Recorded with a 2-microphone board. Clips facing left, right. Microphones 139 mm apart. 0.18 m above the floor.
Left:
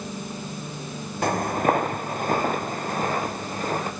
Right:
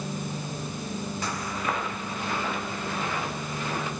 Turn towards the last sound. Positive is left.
turn(degrees=45)  # may be behind; listen again after turning